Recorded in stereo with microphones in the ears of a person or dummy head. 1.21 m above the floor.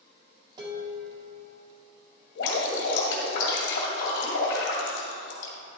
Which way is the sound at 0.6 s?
30° right (ahead or behind).